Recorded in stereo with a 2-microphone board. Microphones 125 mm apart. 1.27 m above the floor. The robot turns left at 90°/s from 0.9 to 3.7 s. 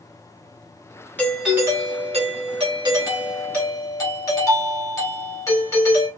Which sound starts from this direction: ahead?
A doorbell, at 1.2 s.